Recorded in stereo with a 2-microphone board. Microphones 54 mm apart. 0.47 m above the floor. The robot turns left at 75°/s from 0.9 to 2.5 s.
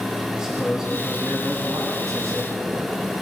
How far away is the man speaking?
About 2.5 m.